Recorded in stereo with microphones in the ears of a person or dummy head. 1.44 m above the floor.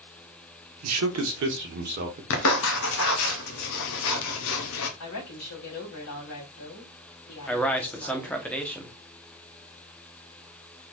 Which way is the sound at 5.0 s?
80° left.